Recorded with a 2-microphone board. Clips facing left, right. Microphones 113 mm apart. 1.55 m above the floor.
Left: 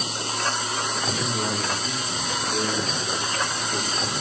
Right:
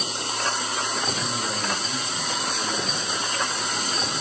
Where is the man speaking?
45° left (ahead or behind), 5.5 m.